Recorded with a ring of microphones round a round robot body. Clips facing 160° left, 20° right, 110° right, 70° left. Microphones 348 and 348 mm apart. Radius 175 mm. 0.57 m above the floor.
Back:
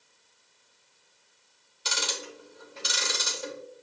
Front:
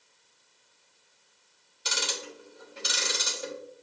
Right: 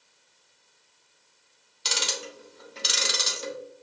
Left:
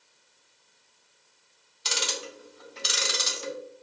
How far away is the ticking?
About 1.0 m.